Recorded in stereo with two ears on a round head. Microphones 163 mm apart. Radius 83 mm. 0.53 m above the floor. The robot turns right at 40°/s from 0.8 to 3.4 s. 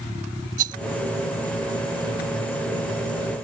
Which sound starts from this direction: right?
A rattle, at 0.6 s.